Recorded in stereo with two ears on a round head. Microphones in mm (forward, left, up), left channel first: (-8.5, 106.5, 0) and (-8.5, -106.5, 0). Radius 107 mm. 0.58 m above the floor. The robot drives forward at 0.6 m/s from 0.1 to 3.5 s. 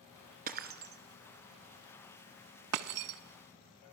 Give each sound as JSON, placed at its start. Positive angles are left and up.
{"t": 0.5, "sound": "breaking glass", "side_deg": -40, "distance_m": 1.7}